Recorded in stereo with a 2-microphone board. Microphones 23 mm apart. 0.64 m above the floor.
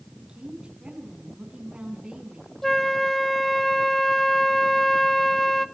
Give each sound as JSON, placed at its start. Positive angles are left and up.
{"t": 0.2, "sound": "a woman speaking", "side_deg": -50, "distance_m": 5.5}
{"t": 2.6, "sound": "a flute", "side_deg": 10, "distance_m": 0.5}